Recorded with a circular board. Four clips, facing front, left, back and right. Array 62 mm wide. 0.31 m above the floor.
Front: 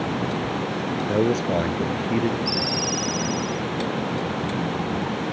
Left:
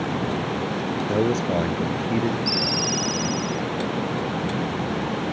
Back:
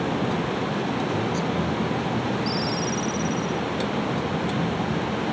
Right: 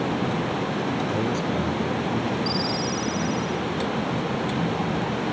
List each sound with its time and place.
1.1 s a man speaking: 35° left
2.5 s a ringtone: 65° left